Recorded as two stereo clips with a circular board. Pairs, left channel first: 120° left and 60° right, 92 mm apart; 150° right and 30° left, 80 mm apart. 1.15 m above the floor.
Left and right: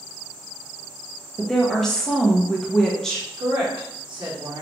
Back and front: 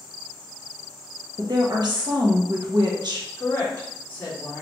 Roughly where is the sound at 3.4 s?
Right.